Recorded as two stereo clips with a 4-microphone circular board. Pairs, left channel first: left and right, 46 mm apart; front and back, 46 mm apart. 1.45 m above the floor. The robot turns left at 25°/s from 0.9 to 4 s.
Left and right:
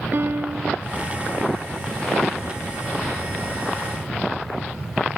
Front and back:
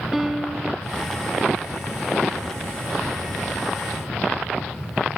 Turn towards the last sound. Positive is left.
turn(degrees=-170)